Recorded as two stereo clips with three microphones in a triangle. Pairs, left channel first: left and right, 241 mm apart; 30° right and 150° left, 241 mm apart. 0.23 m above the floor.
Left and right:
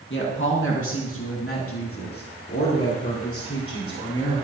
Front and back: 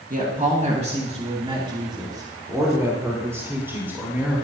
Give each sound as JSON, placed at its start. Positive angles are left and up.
{"t": 0.1, "sound": "a woman speaking", "azimuth_deg": 105, "distance_m": 2.0}